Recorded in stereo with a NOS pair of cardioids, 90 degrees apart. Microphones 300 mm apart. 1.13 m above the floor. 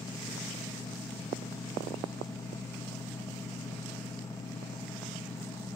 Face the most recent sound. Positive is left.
turn(degrees=10)